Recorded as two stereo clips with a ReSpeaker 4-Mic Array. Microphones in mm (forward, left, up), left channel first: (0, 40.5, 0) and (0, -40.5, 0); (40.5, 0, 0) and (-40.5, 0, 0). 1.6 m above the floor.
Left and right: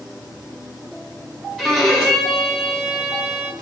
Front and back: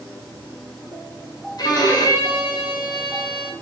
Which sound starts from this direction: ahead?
A violin, at 1.6 s.